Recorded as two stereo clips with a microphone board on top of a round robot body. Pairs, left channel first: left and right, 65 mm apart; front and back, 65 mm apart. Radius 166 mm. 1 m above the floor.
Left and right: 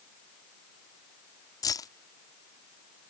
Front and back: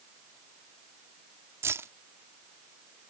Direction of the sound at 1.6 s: 125° left.